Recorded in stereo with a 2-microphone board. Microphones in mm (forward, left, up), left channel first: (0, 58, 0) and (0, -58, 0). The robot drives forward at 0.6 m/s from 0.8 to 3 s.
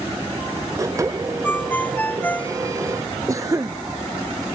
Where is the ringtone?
15° left (ahead or behind).